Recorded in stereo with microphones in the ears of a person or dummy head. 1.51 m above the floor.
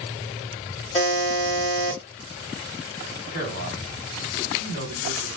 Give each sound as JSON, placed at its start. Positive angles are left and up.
{"t": 0.9, "sound": "a buzzer", "side_deg": 35, "distance_m": 1.6}
{"t": 3.3, "sound": "a man speaking", "side_deg": 55, "distance_m": 1.9}